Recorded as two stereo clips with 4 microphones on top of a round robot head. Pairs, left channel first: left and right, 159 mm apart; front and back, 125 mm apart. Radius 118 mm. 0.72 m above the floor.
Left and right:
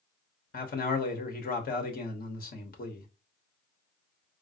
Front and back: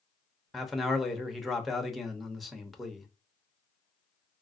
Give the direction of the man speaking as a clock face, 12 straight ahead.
9 o'clock.